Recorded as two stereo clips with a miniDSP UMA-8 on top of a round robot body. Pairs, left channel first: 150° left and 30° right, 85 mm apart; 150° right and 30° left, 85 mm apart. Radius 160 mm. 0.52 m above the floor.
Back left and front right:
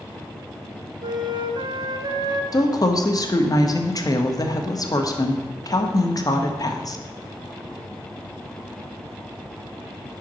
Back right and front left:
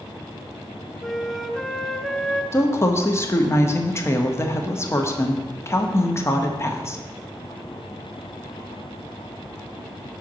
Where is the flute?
65° right, 0.8 m.